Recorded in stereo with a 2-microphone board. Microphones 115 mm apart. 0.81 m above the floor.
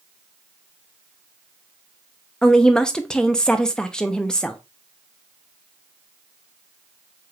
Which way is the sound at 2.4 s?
5° left (ahead or behind).